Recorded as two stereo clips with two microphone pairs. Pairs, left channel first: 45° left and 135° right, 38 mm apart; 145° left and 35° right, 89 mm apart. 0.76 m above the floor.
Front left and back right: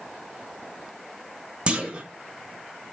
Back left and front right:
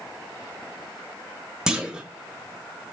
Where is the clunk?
105° right, 0.5 m.